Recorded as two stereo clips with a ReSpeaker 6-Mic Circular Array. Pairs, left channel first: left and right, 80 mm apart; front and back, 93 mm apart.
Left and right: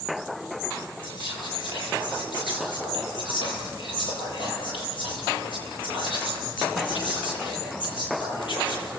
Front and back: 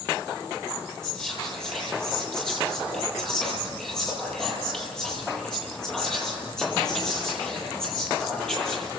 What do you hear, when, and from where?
1.0 s whispering: 85° left, 10 m